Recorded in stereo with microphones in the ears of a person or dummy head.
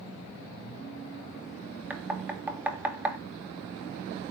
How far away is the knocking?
About 2 m.